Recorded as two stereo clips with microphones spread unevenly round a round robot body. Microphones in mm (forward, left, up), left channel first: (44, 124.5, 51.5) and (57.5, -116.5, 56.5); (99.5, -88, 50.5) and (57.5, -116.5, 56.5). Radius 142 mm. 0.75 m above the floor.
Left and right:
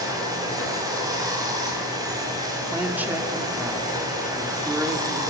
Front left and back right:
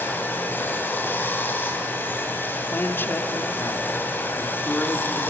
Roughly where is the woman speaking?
Ahead.